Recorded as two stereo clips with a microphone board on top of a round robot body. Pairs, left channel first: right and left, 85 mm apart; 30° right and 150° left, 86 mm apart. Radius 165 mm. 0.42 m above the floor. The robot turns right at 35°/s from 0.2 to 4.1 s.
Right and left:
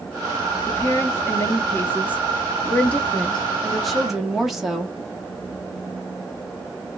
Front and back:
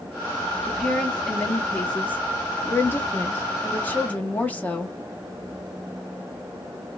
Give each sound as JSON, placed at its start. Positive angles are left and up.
{"t": 0.7, "sound": "a woman speaking", "azimuth_deg": -110, "distance_m": 1.0}